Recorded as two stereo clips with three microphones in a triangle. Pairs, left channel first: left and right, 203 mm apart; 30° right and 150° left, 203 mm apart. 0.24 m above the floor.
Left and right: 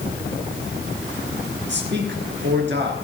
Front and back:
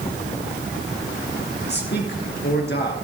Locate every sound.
1.7 s a man speaking: 60° right, 3 m